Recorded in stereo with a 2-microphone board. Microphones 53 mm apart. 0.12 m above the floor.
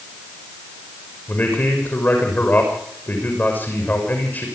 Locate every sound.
1.3 s a man speaking: 35° left (ahead or behind), 7 m